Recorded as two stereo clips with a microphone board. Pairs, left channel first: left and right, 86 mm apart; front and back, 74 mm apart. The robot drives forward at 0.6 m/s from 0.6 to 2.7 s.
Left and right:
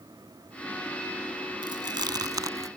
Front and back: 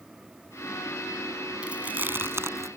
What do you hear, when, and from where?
1.6 s chewing: 105° right; by 2.7 s 135° right